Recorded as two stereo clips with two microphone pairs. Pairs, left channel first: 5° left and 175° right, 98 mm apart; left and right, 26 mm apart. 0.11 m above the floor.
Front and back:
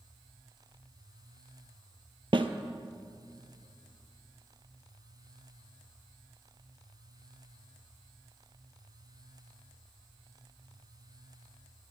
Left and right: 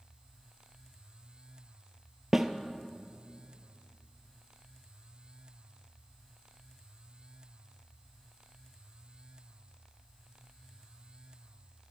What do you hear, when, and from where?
2.3 s a snare drum: 160° right, 0.7 m